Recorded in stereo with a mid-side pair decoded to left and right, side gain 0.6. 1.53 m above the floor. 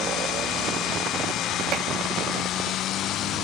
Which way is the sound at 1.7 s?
60° right.